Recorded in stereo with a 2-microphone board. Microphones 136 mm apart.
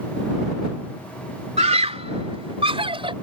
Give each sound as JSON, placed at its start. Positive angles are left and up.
{"t": 1.6, "sound": "a scream", "side_deg": -55}